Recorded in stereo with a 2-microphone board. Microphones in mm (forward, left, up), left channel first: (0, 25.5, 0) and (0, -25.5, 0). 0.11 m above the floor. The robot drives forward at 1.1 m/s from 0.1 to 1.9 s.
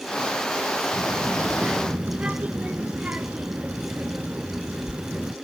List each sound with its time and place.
0.9 s a child speaking: 20° right (ahead or behind), 1.2 m; by 5.3 s 25° right (ahead or behind), 0.8 m